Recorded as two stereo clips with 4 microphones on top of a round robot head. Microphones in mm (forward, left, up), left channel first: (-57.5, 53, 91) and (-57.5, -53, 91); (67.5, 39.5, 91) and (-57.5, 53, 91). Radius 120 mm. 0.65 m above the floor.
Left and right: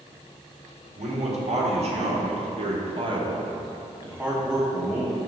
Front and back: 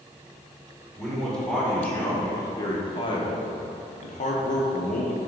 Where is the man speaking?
95° right, 2.0 m; by 5.2 s 5° left, 1.5 m.